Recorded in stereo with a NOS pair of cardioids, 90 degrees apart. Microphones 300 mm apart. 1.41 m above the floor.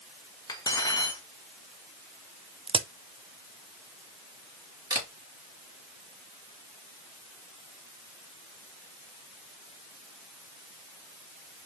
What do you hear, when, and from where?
0.5 s cutlery clinking: 15° left, 1.5 m
2.7 s a crack: 20° right, 0.6 m
4.9 s a camera shutter: 10° right, 3.5 m